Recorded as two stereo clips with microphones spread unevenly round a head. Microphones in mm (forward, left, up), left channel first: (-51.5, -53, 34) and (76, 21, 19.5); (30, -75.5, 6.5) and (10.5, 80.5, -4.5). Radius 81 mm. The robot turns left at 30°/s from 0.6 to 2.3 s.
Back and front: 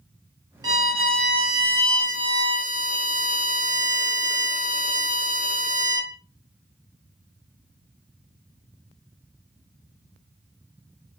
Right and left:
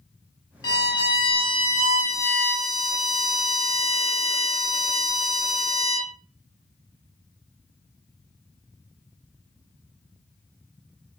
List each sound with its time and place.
0.6 s a violin: 30° right, 0.7 m; by 6.1 s 80° right, 0.7 m